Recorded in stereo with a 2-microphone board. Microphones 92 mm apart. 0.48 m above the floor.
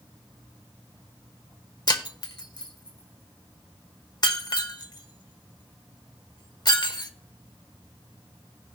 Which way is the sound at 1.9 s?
45° left (ahead or behind).